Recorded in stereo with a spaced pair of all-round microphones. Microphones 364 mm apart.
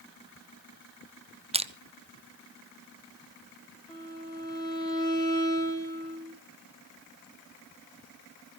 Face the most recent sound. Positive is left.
turn(degrees=10)  # may be behind; listen again after turning